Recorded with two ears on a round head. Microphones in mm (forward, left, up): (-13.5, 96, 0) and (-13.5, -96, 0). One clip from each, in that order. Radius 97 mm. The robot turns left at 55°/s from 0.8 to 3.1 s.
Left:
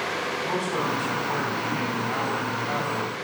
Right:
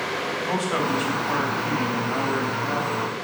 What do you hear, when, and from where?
0.4 s a man speaking: 120° right, 3.5 m; by 3.1 s 115° left, 3.5 m